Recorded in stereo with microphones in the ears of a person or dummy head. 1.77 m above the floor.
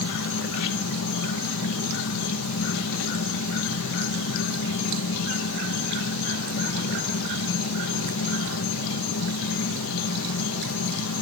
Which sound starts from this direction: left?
An insect, at 0.0 s.